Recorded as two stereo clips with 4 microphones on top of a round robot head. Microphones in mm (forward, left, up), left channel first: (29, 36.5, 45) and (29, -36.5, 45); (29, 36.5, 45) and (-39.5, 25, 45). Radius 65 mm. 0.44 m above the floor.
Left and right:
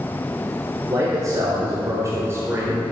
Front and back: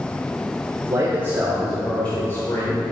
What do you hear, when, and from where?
0.9 s a man speaking: 130° right, 1.2 m; by 2.8 s 30° right, 1.4 m